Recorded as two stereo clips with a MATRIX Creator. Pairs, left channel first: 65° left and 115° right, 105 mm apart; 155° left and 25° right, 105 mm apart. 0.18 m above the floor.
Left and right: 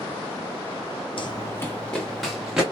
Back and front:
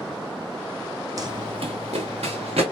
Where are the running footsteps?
30° left, 0.5 m; by 2.6 s 30° right, 1.4 m.